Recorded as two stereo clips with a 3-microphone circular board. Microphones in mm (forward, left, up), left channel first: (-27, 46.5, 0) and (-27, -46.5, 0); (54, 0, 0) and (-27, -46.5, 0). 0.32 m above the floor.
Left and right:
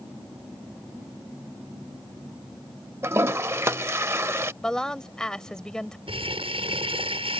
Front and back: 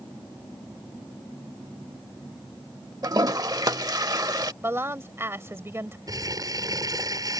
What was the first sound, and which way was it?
A toilet flushing, 140° right.